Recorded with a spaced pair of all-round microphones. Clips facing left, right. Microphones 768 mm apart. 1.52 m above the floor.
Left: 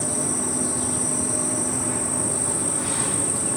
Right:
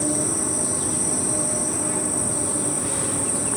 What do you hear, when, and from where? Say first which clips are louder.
0.0 s an insect: right 3 dB; 65° right (ahead or behind), 1.5 m